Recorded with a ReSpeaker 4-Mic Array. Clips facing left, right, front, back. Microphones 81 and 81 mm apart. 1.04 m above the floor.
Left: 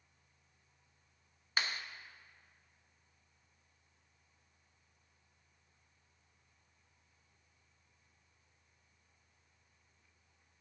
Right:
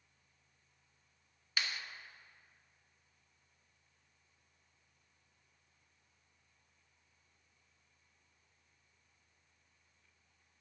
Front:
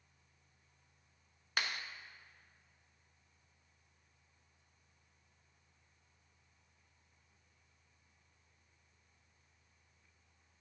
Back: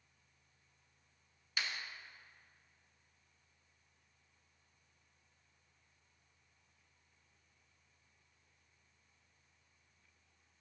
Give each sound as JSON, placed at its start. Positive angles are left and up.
{"t": 1.6, "sound": "a clap", "azimuth_deg": 35, "distance_m": 1.1}